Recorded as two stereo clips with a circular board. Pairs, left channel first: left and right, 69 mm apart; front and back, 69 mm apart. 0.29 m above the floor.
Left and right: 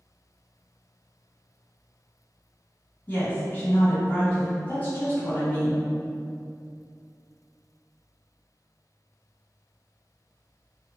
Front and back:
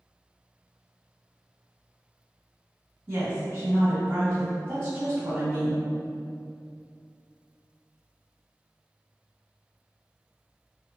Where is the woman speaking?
140° left, 1.9 m.